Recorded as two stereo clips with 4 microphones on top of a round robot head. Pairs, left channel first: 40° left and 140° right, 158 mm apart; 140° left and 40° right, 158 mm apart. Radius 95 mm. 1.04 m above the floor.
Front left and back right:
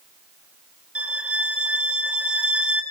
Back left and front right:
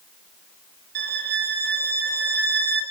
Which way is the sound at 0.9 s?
55° right.